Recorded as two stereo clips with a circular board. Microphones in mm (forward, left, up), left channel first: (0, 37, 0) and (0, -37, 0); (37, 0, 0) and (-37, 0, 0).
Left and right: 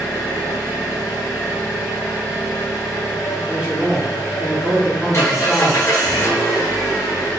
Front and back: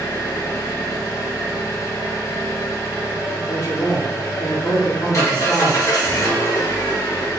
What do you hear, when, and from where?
0.0 s an engine running: 40° left, 1.6 m
3.5 s a man speaking: 20° right, 1.6 m